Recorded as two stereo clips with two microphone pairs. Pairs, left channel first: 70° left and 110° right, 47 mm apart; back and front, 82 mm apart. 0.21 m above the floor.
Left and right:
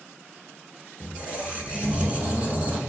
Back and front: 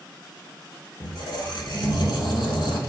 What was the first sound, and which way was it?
A squeak, 170° right.